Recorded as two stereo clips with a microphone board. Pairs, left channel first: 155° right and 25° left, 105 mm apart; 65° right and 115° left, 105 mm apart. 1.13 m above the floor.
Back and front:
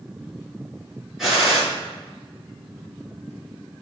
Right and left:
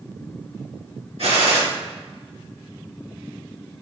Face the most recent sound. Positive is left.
turn(degrees=110)